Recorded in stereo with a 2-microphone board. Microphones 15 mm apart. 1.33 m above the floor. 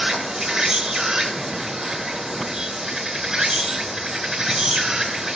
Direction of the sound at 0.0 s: 45° right (ahead or behind).